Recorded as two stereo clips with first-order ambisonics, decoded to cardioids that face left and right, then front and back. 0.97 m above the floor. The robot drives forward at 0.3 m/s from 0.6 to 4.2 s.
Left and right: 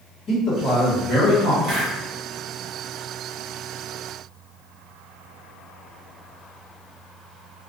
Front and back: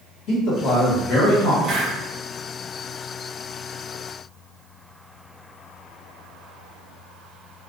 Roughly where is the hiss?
Right.